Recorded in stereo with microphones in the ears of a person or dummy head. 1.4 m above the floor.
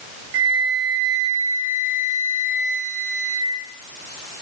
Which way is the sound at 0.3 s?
65° right (ahead or behind).